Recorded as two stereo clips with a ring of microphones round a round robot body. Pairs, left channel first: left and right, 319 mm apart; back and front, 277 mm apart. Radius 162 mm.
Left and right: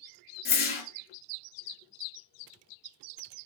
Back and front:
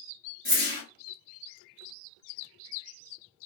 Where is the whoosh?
40° left, 1.5 m.